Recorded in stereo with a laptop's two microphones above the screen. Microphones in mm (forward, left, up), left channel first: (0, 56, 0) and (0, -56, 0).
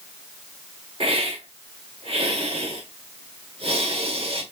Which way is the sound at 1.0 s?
55° right (ahead or behind).